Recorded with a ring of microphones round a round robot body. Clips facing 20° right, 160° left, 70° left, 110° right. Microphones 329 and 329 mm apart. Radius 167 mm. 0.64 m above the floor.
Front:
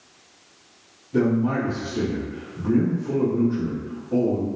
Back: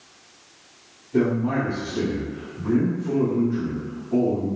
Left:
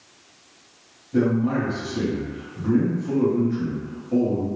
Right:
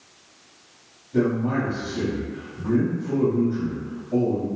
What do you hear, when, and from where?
1.1 s a man speaking: 35° left, 1.0 m